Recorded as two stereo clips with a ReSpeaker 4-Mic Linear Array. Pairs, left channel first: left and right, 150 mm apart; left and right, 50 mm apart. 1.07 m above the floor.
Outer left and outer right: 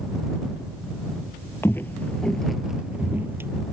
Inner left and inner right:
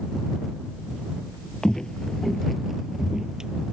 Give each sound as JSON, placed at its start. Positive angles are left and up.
{"t": 1.6, "sound": "footsteps", "side_deg": 15}